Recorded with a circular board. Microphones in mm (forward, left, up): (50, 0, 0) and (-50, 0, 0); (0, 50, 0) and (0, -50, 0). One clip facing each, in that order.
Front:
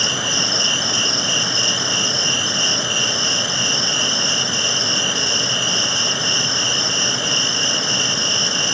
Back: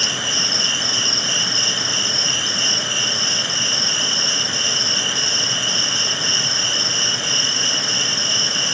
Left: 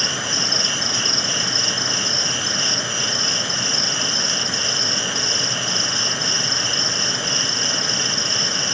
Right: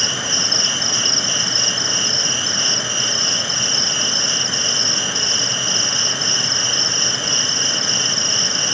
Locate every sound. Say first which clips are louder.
0.0 s an insect: front 3 dB, even; 10° left, 3 m